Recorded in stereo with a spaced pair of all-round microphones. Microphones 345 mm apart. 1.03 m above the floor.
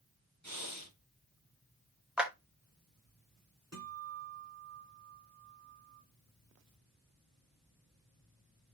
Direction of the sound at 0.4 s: 55° right (ahead or behind).